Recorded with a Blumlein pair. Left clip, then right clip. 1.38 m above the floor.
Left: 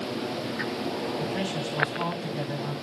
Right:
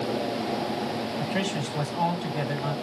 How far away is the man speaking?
About 4.5 m.